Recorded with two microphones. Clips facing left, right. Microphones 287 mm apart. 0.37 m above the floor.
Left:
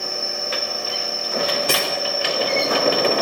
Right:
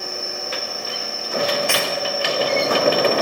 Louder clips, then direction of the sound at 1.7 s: Even; 40° left (ahead or behind).